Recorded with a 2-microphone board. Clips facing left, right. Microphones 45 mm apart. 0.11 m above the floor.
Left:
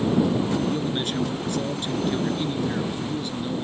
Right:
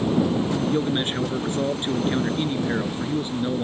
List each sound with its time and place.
0.7 s a man speaking: 30° right (ahead or behind)